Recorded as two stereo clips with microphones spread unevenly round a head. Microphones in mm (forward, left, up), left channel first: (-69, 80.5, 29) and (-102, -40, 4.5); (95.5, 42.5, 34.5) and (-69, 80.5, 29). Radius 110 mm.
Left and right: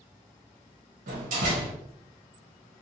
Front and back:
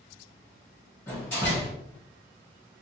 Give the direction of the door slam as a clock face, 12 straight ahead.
3 o'clock.